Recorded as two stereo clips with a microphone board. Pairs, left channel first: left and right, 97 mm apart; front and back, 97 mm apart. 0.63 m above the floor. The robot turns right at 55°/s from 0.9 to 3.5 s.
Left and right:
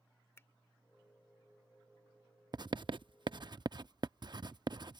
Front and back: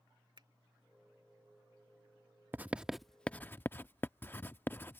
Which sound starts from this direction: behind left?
A finger snap, at 0.4 s.